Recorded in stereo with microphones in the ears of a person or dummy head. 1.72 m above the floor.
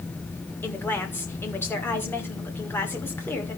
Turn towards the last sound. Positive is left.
turn(degrees=10)  # may be behind; listen again after turning